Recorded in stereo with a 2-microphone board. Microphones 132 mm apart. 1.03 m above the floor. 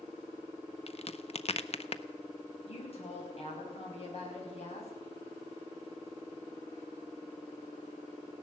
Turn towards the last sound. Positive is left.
turn(degrees=50)  # may be behind; listen again after turning